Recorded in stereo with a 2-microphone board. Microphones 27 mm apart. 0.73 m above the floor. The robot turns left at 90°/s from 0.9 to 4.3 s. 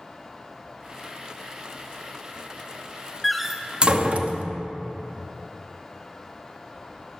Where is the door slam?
10° left (ahead or behind), 0.7 m; by 4.4 s 55° right (ahead or behind), 0.7 m.